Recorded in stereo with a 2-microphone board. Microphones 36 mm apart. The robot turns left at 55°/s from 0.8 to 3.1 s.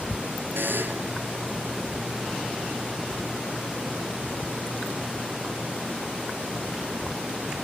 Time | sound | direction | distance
0.6 | a buzzer | 70° right (ahead or behind) | ?